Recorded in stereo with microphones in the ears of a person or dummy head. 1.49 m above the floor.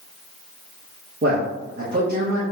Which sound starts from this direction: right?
A man speaking, at 1.2 s.